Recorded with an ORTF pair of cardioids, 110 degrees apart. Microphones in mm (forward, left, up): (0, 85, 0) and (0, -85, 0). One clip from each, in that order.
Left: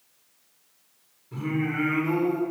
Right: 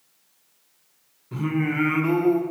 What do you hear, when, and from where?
1.3 s singing: 50° right, 1.3 m